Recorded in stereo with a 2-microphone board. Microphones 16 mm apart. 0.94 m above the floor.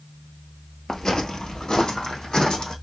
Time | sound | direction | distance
0.9 | footsteps | 35° left (ahead or behind) | 1.0 m